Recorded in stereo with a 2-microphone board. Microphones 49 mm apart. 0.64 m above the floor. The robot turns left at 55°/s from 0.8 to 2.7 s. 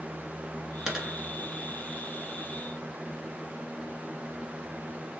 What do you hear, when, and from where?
0.9 s a dropped coin: 15° right (ahead or behind), 1.6 m; by 1.1 s centre (ahead or behind), 1.6 m